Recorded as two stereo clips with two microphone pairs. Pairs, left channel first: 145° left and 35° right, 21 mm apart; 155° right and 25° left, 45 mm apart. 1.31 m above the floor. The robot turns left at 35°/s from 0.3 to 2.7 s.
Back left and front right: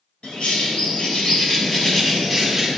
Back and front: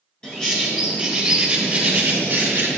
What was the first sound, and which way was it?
A bird, 135° left.